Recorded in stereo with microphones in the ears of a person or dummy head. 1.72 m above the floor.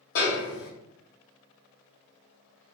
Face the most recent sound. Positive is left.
turn(degrees=60)  # may be behind; listen again after turning